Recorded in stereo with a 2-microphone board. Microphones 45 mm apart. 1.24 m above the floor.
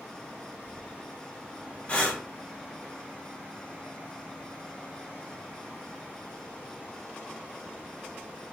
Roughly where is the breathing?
Left.